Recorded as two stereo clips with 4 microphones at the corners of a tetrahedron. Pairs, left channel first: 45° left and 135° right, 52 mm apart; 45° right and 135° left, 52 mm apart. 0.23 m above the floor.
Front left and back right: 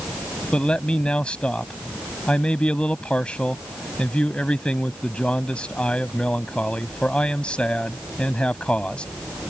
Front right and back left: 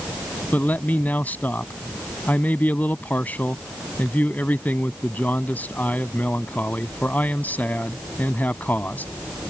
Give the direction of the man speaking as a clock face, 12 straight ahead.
12 o'clock.